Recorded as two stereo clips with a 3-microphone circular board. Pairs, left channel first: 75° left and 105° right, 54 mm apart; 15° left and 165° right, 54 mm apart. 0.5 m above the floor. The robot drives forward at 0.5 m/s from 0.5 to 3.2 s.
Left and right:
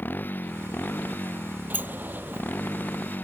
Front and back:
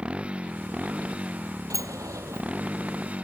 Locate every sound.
0.0 s a motorcycle: 125° left; by 3.2 s 130° left
1.7 s a sliding door: 165° right